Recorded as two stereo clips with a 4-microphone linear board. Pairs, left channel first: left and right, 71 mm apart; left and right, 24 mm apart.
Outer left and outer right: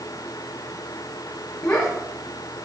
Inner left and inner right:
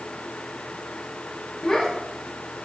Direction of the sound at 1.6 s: 35° left (ahead or behind).